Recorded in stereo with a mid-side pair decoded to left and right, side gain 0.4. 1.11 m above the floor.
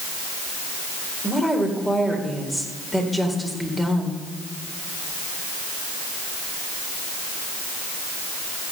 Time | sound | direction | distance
1.2 | a woman speaking | 10° left | 4 m